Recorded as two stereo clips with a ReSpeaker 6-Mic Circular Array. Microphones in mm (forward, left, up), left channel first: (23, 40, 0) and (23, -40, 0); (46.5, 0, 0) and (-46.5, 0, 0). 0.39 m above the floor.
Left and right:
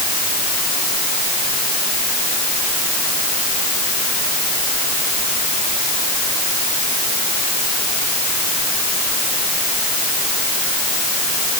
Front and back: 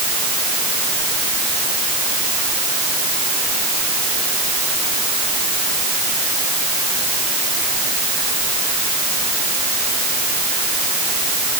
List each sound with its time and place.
Only background noise.